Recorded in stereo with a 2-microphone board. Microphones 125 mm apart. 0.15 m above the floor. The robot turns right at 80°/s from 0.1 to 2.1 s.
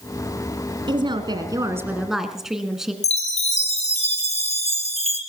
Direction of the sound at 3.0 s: 60° left (ahead or behind).